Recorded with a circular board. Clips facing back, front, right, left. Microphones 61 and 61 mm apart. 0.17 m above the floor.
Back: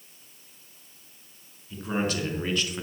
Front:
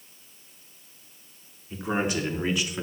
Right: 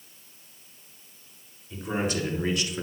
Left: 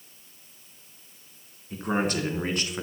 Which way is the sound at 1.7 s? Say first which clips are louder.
Front 1 dB, left 2 dB; 60° left.